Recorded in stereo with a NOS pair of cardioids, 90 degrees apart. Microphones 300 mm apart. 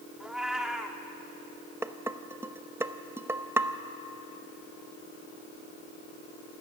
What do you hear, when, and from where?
0.2 s a cat meowing: straight ahead, 1.8 m
1.8 s dishes clattering: 10° right, 1.0 m